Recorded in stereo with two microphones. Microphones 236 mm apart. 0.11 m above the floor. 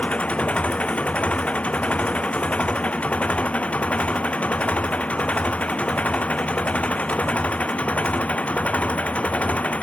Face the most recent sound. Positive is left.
turn(degrees=5)  # may be behind; listen again after turning